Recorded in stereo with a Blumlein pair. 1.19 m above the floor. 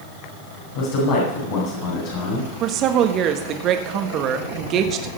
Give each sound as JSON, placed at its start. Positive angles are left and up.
{"t": 0.8, "sound": "a man speaking", "azimuth_deg": 55, "distance_m": 5.5}
{"t": 2.6, "sound": "a woman speaking", "azimuth_deg": -35, "distance_m": 1.6}